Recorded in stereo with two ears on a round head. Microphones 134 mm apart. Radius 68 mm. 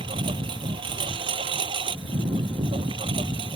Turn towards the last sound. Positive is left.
turn(degrees=-30)  # may be behind; listen again after turning